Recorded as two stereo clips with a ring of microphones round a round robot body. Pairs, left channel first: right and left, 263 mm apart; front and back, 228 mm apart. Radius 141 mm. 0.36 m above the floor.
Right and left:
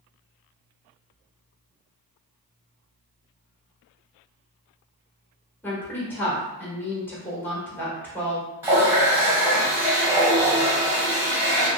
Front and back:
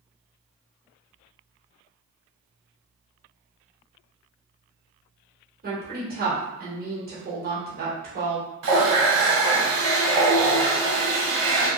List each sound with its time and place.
5.6 s a woman speaking: 170° right, 1.6 m
8.6 s a running tap: 170° left, 1.7 m